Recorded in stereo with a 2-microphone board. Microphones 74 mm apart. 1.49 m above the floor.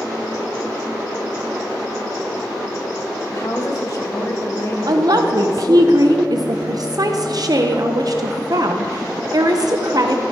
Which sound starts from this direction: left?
A woman speaking, at 3.3 s.